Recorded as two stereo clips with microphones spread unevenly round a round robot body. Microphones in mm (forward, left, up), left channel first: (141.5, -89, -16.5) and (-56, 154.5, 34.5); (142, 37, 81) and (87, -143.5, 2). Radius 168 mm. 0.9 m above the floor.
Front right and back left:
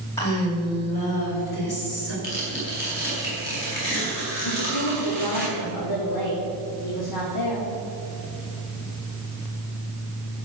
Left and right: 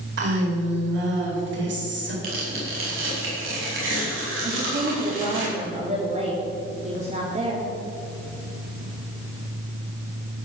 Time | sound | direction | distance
0.2 | a woman speaking | 130° right | 3.5 m
2.2 | tearing paper | 110° right | 5 m
4.4 | a woman speaking | 65° right | 2.5 m